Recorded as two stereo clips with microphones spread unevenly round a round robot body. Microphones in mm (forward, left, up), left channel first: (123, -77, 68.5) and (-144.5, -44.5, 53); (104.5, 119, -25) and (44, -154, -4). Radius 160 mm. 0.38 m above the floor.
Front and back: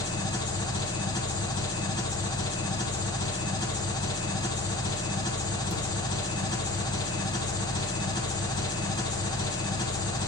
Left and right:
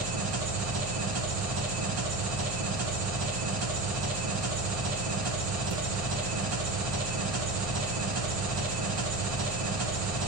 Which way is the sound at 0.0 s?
80° right.